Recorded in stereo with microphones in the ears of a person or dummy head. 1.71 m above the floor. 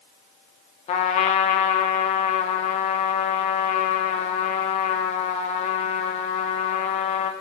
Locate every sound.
0.9 s a trumpet: 30° left (ahead or behind), 0.7 m